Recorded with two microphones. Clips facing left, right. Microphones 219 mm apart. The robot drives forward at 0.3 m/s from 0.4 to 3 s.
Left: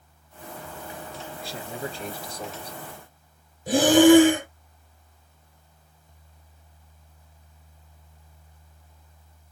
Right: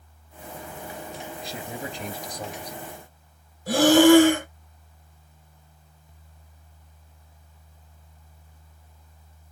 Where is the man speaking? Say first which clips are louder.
Left 2 dB; 20° right (ahead or behind), 1.4 m; by 2.8 s 15° right (ahead or behind), 1.6 m.